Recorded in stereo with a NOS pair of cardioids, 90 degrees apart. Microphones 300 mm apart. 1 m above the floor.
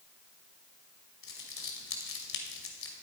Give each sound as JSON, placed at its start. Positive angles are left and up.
{"t": 1.2, "sound": "crumpling", "azimuth_deg": 45, "distance_m": 2.5}